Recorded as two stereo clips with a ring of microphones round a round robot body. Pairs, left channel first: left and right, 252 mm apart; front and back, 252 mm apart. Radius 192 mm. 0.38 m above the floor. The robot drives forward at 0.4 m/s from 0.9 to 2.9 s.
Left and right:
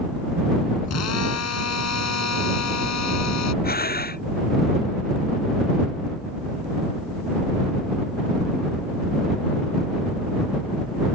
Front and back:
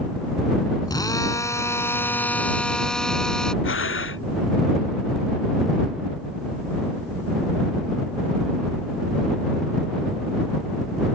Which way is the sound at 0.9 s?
75° left.